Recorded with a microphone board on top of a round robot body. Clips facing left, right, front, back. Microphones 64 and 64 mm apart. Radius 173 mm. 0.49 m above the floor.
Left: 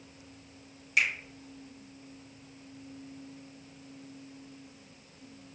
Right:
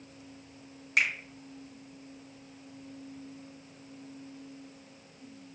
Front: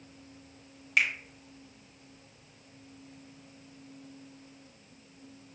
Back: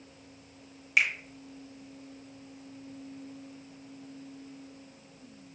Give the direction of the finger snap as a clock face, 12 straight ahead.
3 o'clock.